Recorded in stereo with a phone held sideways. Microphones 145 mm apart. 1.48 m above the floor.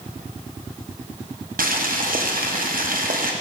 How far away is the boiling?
About 0.7 m.